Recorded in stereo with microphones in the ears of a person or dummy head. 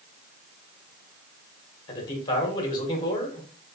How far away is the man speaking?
About 1.4 m.